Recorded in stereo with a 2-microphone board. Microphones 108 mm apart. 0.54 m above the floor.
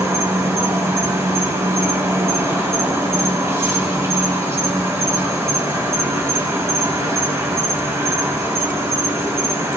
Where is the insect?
25° right (ahead or behind), 3 m.